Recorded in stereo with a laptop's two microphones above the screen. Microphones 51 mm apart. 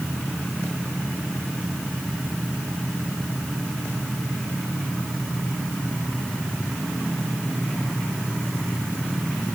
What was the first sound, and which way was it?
Only background noise.